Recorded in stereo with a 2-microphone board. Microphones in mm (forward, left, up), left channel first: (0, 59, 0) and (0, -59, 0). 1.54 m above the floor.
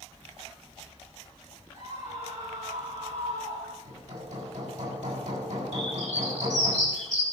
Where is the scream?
75° right (ahead or behind), 8 m; by 3.8 s 80° right, 7 m.